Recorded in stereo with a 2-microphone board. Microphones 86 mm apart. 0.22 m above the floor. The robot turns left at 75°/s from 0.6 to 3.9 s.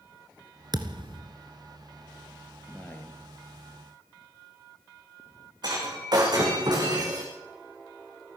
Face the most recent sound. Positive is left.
turn(degrees=-50)  # may be behind; listen again after turning